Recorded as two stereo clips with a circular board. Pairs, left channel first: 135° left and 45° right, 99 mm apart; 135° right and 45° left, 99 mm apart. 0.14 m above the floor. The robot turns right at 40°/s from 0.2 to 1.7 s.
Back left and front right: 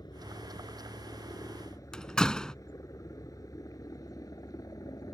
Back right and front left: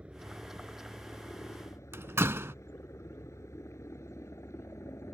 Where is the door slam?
60° left.